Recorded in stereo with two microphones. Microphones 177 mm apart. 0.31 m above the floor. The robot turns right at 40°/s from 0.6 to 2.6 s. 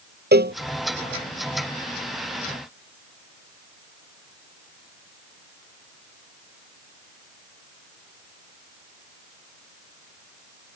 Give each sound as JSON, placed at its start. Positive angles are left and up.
{"t": 0.3, "sound": "a cowbell", "side_deg": -70}